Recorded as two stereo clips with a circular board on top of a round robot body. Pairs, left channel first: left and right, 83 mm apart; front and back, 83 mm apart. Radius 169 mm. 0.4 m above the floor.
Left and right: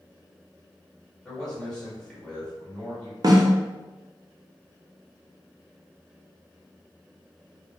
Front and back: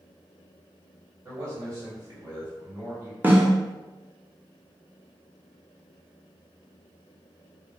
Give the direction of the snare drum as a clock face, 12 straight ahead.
4 o'clock.